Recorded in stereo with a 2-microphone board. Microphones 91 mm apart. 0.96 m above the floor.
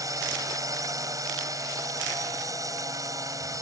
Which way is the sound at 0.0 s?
35° right (ahead or behind).